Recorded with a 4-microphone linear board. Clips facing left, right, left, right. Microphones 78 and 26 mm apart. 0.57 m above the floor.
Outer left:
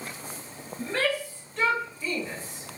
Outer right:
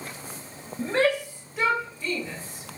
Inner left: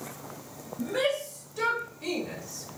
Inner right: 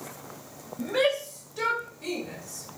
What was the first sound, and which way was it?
A shout, 30° right (ahead or behind).